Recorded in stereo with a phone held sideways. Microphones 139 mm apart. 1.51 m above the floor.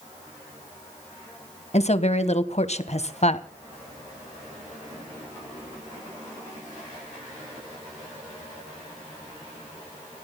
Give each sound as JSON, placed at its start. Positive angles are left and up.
{"t": 1.7, "sound": "a woman speaking", "side_deg": 50, "distance_m": 1.5}